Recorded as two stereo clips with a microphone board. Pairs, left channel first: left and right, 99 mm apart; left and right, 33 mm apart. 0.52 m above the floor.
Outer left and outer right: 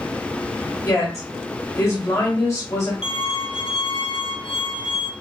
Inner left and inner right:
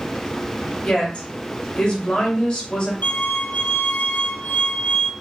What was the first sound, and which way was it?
A woman speaking, 35° left (ahead or behind).